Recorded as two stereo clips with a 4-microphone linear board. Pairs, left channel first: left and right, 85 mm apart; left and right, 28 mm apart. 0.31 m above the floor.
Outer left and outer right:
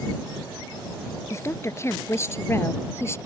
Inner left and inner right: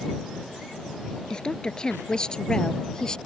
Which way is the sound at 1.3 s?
30° left (ahead or behind).